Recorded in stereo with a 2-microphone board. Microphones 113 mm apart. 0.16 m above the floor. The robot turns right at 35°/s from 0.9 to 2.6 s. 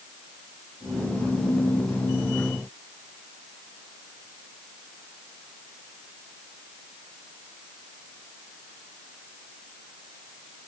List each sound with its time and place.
Only background noise.